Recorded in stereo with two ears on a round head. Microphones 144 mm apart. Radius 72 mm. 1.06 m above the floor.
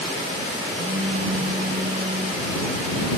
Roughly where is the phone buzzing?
Right.